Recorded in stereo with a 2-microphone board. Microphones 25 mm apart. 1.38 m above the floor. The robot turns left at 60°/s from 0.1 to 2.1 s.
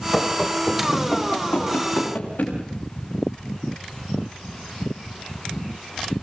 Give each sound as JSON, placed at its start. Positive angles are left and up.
{"t": 0.1, "sound": "running footsteps", "side_deg": -5, "distance_m": 5.0}